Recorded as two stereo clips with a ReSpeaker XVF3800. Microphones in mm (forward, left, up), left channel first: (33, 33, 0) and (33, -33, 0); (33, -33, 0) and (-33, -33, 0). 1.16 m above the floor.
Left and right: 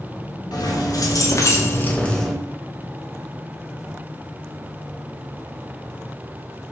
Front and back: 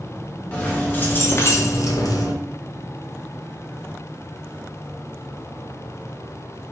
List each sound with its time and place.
0.5 s keys jangling: 70° left, 1.0 m; by 2.3 s straight ahead, 0.6 m